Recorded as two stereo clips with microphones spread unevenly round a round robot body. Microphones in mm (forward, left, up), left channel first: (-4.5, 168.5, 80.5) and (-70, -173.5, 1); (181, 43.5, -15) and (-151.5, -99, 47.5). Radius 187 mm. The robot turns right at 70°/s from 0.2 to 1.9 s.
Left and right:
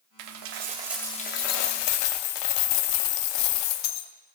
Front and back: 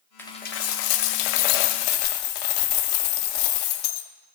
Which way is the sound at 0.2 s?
60° right.